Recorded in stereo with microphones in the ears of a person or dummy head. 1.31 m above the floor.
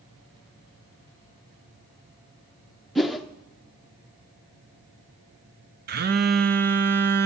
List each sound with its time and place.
3.0 s a whoosh: centre (ahead or behind), 0.8 m
5.9 s a phone buzzing: 40° right (ahead or behind), 0.8 m